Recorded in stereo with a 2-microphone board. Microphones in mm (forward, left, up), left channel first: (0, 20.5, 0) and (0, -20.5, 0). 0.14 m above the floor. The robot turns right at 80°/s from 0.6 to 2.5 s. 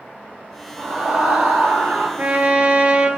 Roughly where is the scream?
Behind.